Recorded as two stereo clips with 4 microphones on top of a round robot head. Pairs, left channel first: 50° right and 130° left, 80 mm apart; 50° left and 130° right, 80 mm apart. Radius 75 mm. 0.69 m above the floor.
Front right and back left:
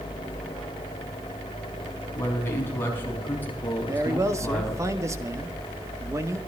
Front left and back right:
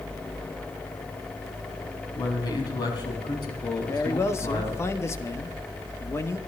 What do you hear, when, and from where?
2.1 s a man speaking: 10° left, 6 m; by 4.8 s 25° left, 7 m
3.9 s a man speaking: 95° left, 1.7 m